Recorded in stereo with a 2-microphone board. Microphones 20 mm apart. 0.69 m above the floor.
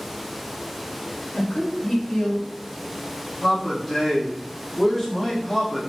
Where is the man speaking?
15° left (ahead or behind), 1.4 m.